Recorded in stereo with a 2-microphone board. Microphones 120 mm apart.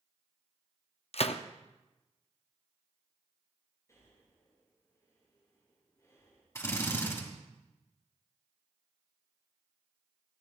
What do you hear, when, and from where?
1.1 s a gunshot: 60° left (ahead or behind), 0.6 m
3.9 s breathing: 25° left (ahead or behind), 6.5 m
6.5 s a drill: 25° left (ahead or behind), 3 m